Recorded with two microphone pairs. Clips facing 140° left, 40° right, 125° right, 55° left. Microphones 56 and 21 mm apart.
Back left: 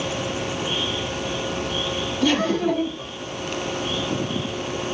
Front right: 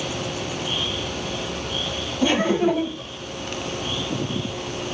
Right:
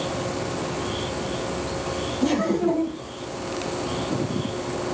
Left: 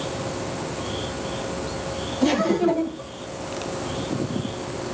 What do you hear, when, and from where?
2.2 s laughter: 5° left, 1.2 m